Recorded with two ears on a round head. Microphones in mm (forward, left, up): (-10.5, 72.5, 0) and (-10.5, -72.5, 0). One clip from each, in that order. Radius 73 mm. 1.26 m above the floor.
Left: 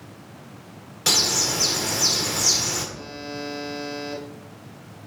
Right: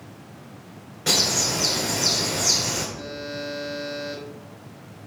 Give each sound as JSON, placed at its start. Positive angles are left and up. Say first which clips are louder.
{"t": 1.1, "sound": "a bird", "louder": "left 1 dB", "side_deg": 65, "distance_m": 1.7}
{"t": 3.0, "sound": "a buzzer", "louder": "right 2 dB", "side_deg": 80, "distance_m": 4.0}